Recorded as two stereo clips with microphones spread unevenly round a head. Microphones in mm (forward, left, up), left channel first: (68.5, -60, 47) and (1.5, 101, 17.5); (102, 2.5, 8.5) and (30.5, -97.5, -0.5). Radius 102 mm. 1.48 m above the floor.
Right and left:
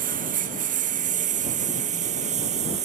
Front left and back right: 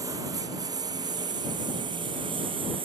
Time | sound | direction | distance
0.0 | a lawn mower | 160° left | ?